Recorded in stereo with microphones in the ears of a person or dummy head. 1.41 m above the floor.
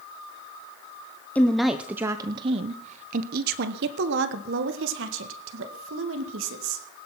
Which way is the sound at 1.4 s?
5° left (ahead or behind).